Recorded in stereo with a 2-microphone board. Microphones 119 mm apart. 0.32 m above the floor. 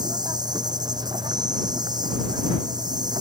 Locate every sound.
0.0 s an insect: 40° right (ahead or behind)